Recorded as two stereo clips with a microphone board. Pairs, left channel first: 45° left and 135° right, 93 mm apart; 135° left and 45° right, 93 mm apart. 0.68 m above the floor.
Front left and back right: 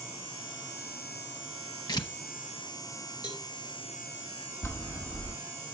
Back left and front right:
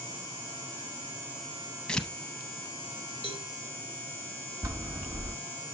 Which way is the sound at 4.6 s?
Straight ahead.